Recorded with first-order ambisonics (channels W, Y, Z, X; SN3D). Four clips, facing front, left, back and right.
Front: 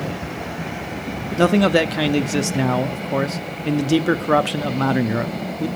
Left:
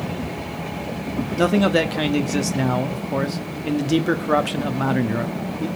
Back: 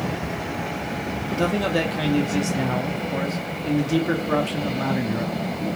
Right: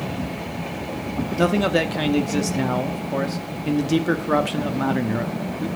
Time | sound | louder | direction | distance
1.4 | a man speaking | left 2 dB, front 7 dB | 10° left | 0.9 m